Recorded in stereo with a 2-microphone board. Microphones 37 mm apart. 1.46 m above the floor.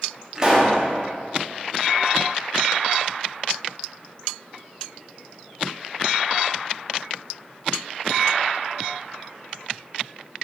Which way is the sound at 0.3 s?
20° right (ahead or behind).